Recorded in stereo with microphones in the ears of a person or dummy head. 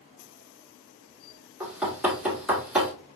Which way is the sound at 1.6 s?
5° right (ahead or behind).